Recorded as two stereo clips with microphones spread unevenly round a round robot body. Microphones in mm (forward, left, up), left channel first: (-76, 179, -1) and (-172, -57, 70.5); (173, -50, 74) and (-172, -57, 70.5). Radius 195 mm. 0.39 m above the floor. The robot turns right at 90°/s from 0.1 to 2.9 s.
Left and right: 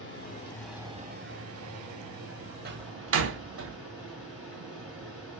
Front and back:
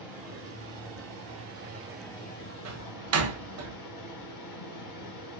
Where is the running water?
95° left, 1.7 m; by 5.4 s 15° right, 1.7 m.